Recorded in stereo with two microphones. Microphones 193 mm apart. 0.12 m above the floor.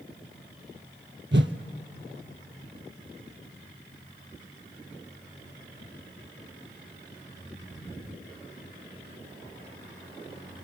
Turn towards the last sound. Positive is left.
turn(degrees=-75)  # may be behind; listen again after turning